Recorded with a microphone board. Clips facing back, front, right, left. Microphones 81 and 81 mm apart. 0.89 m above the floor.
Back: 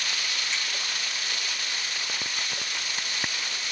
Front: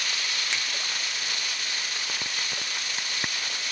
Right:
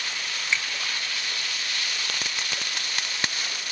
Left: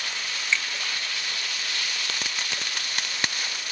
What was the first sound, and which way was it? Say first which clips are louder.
A finger snap: front 2 dB, left 1 dB; 15° right.